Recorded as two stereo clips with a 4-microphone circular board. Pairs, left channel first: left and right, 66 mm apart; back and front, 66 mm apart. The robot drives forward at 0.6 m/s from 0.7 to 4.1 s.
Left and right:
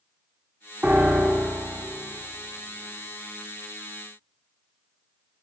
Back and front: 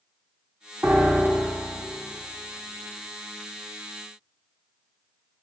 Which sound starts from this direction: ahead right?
A piano, at 0.8 s.